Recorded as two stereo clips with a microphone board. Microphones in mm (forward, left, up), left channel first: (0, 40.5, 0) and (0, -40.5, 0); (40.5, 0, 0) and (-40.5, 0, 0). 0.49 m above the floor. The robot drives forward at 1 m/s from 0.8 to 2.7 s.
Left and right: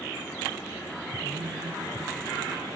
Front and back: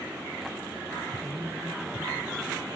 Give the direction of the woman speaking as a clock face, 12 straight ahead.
4 o'clock.